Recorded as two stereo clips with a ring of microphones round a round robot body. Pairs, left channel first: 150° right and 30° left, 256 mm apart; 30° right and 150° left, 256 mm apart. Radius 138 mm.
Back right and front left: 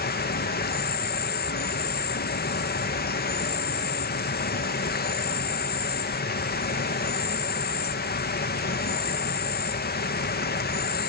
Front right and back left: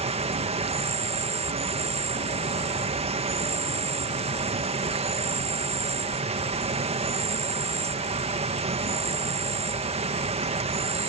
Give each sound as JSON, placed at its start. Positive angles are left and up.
{"t": 0.0, "sound": "an insect", "azimuth_deg": -160}